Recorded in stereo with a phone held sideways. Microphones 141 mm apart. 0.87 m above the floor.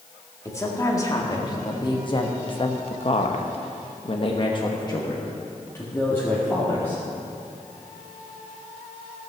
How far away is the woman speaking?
About 2.0 m.